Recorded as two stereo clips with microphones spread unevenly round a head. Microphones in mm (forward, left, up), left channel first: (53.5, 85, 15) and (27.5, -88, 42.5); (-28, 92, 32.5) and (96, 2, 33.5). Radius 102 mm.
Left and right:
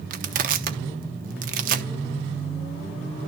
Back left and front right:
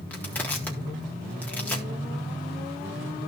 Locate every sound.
0.1 s crushing: 135° right, 0.9 m